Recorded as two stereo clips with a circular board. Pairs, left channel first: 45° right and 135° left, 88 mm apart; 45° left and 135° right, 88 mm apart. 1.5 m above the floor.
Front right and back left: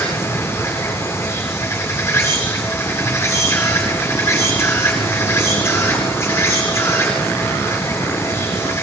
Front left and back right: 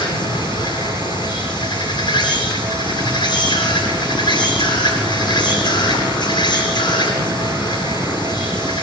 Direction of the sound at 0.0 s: 15° left.